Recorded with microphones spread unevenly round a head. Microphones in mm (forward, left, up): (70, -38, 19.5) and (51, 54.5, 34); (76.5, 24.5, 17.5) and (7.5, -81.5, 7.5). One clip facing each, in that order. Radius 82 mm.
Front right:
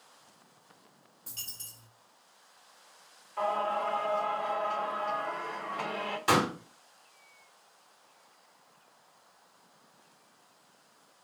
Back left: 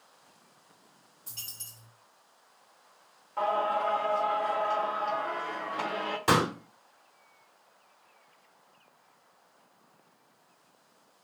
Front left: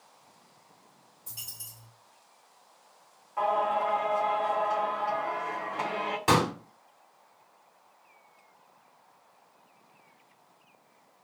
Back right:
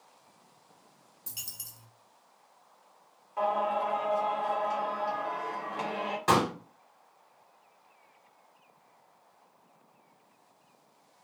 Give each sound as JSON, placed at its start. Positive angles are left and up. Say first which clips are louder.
{"t": 1.3, "sound": "a dropped coin", "louder": "front right 1 dB, even", "azimuth_deg": -145, "distance_m": 0.7}
{"t": 3.4, "sound": "singing", "louder": "back left 2 dB, front left 2 dB", "azimuth_deg": 165, "distance_m": 0.8}
{"t": 6.3, "sound": "a pop", "louder": "back left 1 dB, front left 1 dB", "azimuth_deg": 130, "distance_m": 1.1}